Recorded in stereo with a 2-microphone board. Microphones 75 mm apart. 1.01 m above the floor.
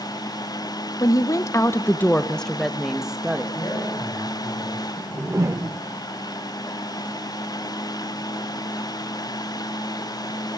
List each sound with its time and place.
1.0 s a woman speaking: 50° left (ahead or behind), 1.1 m; by 3.4 s 15° right (ahead or behind), 1.6 m
3.5 s a man speaking: 60° left (ahead or behind), 9 m
5.0 s a whoosh: 40° right (ahead or behind), 0.8 m